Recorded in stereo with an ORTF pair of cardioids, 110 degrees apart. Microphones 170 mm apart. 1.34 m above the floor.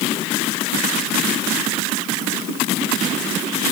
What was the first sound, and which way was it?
Only background noise.